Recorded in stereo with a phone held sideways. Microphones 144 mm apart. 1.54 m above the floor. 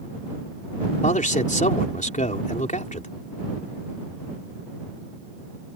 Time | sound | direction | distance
1.0 | a man speaking | 60° left (ahead or behind) | ?